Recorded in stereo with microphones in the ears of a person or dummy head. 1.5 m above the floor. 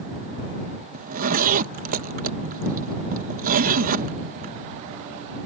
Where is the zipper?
50° right (ahead or behind).